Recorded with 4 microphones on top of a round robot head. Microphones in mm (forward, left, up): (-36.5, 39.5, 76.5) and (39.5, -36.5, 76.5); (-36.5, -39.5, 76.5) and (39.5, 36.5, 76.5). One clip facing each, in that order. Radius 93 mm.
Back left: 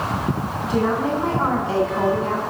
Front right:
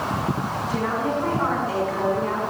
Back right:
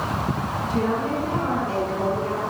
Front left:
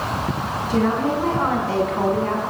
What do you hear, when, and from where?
0.7 s a woman speaking: 70° left, 7.5 m; by 2.4 s 80° left, 7.5 m